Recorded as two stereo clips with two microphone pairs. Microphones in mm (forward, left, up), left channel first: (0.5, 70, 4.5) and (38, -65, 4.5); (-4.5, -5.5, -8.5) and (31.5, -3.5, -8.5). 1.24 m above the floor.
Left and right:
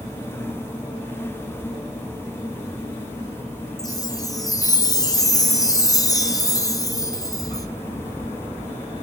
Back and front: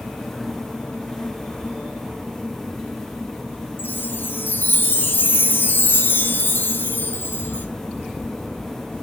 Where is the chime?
170° left, 0.6 m.